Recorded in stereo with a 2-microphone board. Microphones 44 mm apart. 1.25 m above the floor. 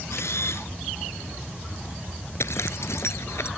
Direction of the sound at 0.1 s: 75° left (ahead or behind).